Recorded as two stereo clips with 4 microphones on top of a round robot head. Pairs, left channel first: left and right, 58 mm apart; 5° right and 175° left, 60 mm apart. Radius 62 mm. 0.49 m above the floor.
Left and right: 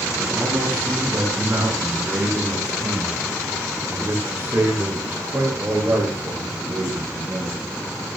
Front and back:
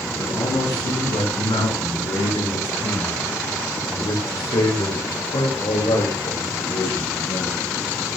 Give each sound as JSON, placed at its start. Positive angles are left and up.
{"t": 0.1, "sound": "a man speaking", "azimuth_deg": -20, "distance_m": 7.0}